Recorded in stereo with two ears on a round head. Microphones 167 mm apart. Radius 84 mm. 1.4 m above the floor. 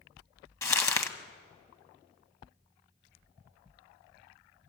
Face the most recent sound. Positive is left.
turn(degrees=15)  # may be behind; listen again after turning